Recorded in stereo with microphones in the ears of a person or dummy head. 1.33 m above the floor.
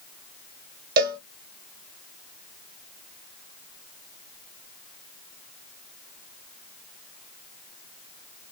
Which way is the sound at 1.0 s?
55° right (ahead or behind).